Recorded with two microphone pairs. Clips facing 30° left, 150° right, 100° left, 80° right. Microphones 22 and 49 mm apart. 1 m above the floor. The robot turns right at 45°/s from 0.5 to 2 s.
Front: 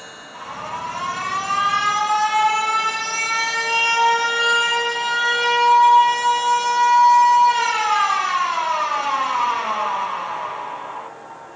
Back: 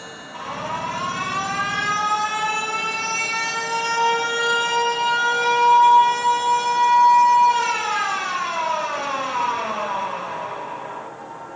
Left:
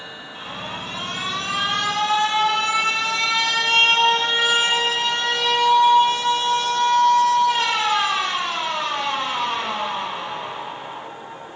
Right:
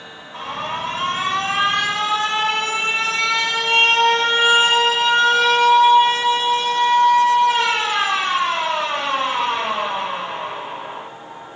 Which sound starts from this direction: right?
An alarm, at 0.3 s.